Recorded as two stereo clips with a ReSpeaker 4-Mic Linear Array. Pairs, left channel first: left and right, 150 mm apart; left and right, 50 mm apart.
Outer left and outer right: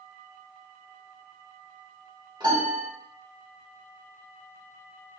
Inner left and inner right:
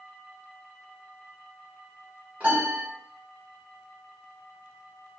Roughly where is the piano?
Right.